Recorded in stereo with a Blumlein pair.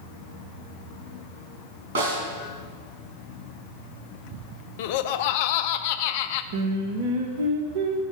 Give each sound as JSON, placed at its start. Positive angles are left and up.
{"t": 1.9, "sound": "a snare drum", "azimuth_deg": -55, "distance_m": 4.5}
{"t": 4.8, "sound": "laughter", "azimuth_deg": 50, "distance_m": 0.5}
{"t": 6.5, "sound": "singing", "azimuth_deg": -50, "distance_m": 1.1}